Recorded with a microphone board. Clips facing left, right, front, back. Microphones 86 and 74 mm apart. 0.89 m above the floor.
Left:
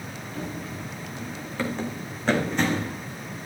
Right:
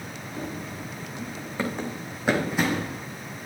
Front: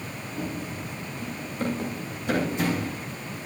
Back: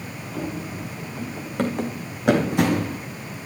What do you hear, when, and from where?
0.3 s running footsteps: 165° right, 4.5 m; by 3.0 s 175° right, 1.7 m